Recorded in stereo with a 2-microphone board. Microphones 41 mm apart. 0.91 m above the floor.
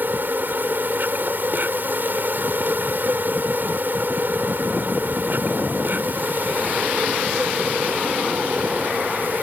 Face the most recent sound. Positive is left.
turn(degrees=-55)  # may be behind; listen again after turning